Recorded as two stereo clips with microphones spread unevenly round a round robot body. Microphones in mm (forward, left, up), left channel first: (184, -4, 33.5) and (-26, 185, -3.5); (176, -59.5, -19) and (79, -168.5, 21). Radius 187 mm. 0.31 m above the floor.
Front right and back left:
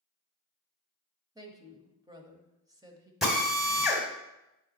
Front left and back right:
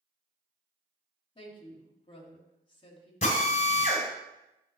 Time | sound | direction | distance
1.4 | a woman speaking | 70° left | 1.4 m
3.2 | a drill | 55° left | 2 m